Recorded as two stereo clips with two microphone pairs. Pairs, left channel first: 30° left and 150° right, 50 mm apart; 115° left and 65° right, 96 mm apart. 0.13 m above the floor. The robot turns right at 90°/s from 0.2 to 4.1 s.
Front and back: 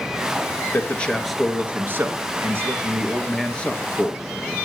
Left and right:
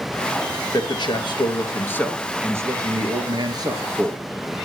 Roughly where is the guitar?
I don't hear a guitar.